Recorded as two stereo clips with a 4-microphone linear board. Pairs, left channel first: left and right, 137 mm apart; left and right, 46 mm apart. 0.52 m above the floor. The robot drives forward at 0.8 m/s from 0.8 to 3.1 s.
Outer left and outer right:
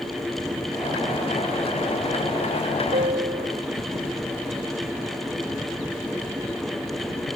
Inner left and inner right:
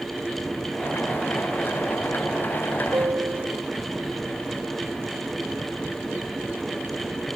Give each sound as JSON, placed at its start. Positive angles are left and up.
{"t": 2.9, "sound": "a piano", "side_deg": -80}